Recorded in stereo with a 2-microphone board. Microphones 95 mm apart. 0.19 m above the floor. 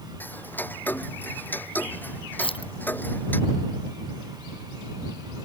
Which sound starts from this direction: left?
Keys jangling, at 2.4 s.